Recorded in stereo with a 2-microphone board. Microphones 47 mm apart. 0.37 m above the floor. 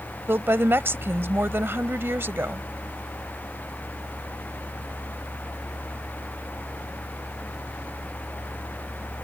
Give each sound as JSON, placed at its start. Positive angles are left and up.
{"t": 0.3, "sound": "a woman speaking", "side_deg": -55}